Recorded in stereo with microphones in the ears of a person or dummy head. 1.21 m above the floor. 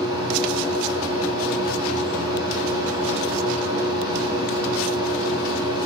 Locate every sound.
0.0 s a machine running: 25° right (ahead or behind), 1.1 m